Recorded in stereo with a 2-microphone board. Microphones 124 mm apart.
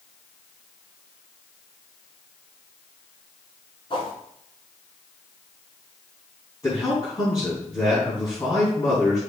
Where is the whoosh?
40° left (ahead or behind), 2.5 m.